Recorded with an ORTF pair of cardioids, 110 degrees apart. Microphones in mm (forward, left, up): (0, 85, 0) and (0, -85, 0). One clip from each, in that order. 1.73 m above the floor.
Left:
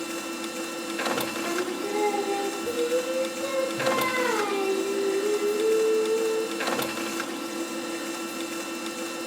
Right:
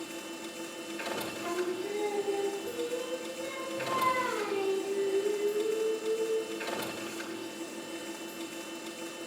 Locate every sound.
0.0 s a machine running: 70° left, 0.8 m
1.4 s singing: 45° left, 0.6 m